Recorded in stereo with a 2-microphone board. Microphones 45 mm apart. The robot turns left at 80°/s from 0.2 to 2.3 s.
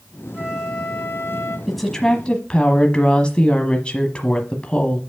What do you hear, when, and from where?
0.3 s a flute: 160° right, 2 m; by 1.6 s 100° left, 2 m
1.7 s a woman speaking: 175° right, 1.1 m; by 5.0 s 135° left, 1.1 m